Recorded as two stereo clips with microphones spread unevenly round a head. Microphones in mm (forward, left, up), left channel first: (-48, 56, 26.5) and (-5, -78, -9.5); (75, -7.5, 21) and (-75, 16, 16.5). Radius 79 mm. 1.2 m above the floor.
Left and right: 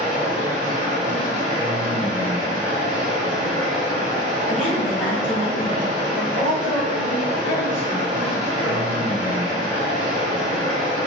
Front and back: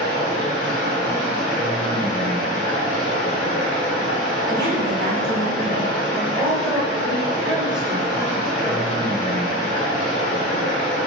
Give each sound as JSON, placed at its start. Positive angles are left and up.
{"t": 0.0, "sound": "running water", "azimuth_deg": 20, "distance_m": 1.3}
{"t": 4.5, "sound": "a woman speaking", "azimuth_deg": -170, "distance_m": 1.9}
{"t": 6.1, "sound": "a woman speaking", "azimuth_deg": 85, "distance_m": 1.4}